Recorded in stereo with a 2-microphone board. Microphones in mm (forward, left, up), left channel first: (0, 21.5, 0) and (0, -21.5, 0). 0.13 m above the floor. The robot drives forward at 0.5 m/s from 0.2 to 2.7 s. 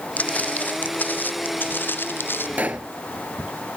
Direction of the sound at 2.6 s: 40° right (ahead or behind).